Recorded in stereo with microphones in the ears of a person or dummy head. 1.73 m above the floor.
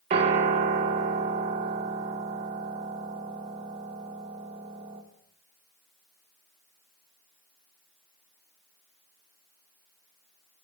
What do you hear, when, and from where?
0.1 s a piano: 30° right (ahead or behind), 1.4 m